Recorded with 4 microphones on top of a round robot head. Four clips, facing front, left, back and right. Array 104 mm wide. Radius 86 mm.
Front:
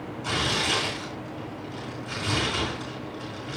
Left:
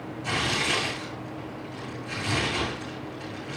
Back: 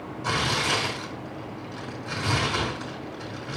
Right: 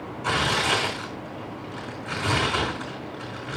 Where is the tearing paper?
120° right, 4 m.